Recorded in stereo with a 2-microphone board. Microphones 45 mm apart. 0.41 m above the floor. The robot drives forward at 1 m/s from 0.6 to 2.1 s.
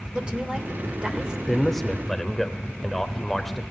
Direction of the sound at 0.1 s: 25° right (ahead or behind).